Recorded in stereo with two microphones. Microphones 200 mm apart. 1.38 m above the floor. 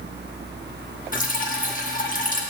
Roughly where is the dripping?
Left.